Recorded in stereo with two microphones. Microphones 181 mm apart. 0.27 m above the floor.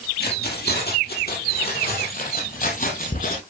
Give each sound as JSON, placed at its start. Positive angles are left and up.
{"t": 0.2, "sound": "keys jangling", "side_deg": 65, "distance_m": 4.5}